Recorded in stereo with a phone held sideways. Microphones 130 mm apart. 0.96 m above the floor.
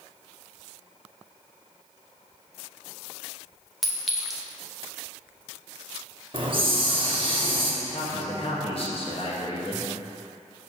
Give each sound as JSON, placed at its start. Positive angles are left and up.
{"t": 3.8, "sound": "a clink", "side_deg": 0, "distance_m": 0.9}
{"t": 6.3, "sound": "a hiss", "side_deg": -40, "distance_m": 0.8}
{"t": 7.8, "sound": "a man speaking", "side_deg": 45, "distance_m": 1.4}